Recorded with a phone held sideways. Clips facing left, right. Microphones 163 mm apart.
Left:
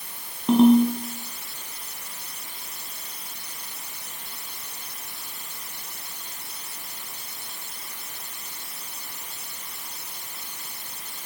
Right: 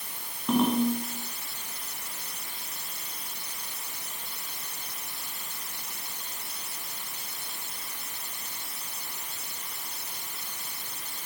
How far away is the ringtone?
About 3 m.